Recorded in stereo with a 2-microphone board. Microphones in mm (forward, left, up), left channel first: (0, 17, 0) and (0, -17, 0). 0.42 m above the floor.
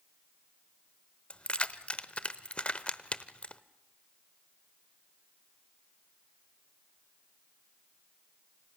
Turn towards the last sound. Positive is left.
turn(degrees=35)  # may be behind; listen again after turning